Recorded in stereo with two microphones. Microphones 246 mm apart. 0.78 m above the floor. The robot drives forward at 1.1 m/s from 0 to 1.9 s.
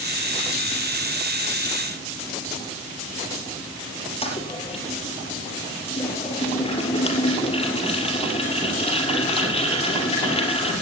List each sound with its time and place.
4.2 s a toilet flushing: 25° left (ahead or behind), 4 m